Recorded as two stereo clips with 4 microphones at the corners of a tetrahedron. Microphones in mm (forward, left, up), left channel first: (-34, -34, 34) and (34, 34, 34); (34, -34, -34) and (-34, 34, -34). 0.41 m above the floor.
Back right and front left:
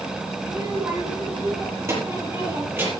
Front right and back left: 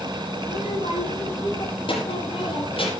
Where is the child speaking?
10° right, 6.5 m; by 2.9 s 25° right, 7.5 m.